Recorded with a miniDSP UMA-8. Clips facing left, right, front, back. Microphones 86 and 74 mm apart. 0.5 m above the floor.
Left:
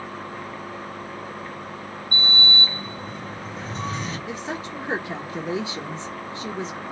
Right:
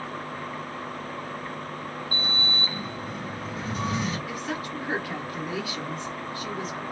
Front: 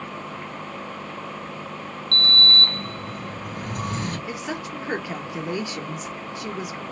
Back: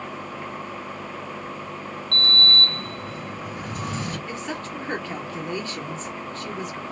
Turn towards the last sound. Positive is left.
turn(degrees=65)